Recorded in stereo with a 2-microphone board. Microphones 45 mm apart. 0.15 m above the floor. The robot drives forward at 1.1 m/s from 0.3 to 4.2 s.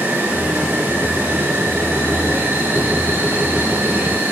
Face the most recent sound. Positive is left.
turn(degrees=-70)  # may be behind; listen again after turning